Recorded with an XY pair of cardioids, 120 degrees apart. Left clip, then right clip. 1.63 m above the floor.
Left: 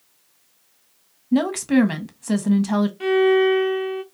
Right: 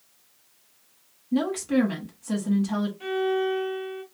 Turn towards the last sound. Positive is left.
turn(degrees=60)